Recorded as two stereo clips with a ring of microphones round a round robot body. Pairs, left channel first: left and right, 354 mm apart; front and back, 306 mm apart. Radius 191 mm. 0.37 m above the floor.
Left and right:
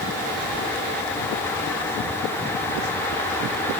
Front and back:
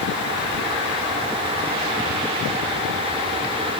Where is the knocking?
No knocking in this recording.